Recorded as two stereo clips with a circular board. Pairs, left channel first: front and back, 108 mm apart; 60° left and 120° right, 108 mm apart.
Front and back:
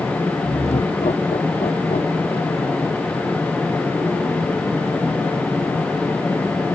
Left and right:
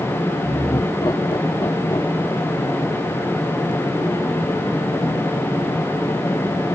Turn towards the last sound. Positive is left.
turn(degrees=5)